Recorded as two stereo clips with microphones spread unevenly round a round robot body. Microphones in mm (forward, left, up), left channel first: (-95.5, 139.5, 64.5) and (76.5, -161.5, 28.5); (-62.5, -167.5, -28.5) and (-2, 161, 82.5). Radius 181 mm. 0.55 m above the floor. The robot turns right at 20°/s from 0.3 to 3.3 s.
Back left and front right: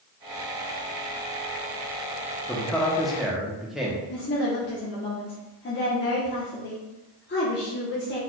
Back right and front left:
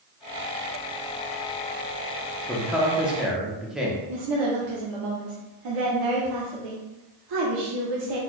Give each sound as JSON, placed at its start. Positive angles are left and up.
{"t": 2.5, "sound": "a man speaking", "azimuth_deg": -145, "distance_m": 0.9}
{"t": 4.1, "sound": "a woman speaking", "azimuth_deg": 65, "distance_m": 1.0}